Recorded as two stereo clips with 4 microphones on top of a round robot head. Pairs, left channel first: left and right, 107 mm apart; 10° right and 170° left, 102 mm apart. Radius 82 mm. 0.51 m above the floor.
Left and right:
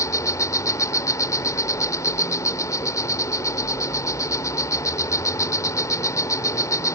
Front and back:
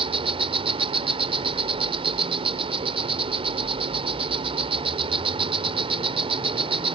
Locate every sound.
0.0 s an insect: 150° left